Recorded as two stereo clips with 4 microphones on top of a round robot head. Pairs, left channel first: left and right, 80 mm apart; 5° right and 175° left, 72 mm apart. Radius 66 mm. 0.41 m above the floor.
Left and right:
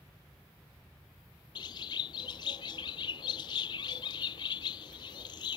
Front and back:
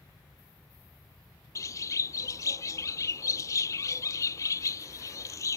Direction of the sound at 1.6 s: 40° left.